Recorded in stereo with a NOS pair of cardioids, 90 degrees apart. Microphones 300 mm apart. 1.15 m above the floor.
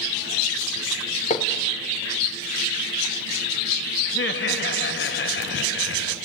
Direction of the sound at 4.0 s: 40° left.